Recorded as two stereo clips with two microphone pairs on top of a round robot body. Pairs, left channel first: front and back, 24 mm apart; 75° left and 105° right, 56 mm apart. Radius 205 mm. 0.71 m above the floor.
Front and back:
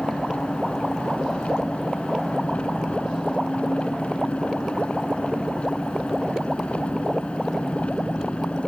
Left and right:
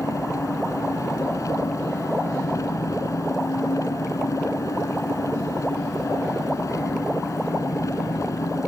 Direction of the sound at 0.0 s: 45° left.